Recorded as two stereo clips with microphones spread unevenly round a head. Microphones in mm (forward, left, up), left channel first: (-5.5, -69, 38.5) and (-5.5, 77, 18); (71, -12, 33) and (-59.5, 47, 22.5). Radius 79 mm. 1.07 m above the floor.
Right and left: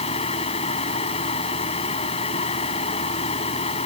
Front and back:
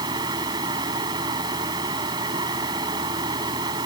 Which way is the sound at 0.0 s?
140° right.